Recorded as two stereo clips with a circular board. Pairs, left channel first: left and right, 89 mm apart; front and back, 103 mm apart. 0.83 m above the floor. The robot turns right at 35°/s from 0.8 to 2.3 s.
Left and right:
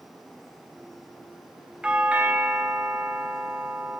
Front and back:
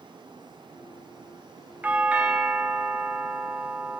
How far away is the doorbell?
About 0.7 m.